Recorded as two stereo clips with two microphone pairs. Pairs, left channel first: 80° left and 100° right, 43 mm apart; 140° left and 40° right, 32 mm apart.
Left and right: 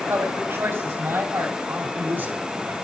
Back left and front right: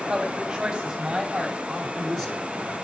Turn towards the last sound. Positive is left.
turn(degrees=-130)